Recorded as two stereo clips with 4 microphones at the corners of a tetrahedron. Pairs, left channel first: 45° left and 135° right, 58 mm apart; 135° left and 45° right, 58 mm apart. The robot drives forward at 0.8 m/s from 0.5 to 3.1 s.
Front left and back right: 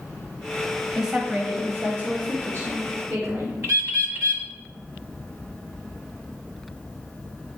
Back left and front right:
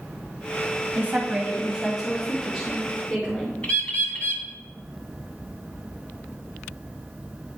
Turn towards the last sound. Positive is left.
turn(degrees=-165)